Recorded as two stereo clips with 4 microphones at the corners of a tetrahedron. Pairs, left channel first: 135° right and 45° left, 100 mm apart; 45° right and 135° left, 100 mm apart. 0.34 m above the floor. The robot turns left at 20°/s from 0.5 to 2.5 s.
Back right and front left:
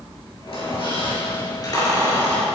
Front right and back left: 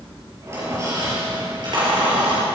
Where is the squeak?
160° right, 4.5 m; by 2.5 s 160° left, 4.5 m.